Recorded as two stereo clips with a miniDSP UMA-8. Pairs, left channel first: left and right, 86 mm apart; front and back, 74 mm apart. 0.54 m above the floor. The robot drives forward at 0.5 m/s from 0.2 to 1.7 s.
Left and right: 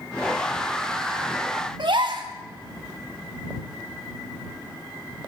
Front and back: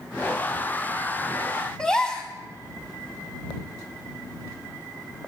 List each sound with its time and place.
1.8 s a gasp: 80° right, 2 m